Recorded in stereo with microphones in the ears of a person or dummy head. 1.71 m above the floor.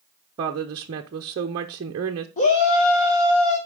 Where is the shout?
35° left (ahead or behind), 1.1 m.